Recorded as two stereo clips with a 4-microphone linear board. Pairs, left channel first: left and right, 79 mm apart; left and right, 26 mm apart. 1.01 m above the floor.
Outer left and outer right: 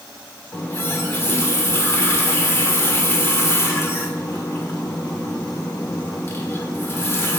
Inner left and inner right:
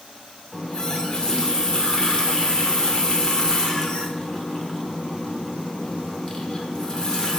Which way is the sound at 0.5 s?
30° left (ahead or behind).